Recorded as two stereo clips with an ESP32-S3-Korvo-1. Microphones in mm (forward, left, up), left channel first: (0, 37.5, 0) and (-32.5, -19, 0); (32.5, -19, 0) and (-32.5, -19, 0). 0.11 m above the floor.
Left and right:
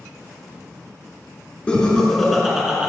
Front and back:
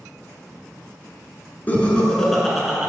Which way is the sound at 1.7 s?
10° left.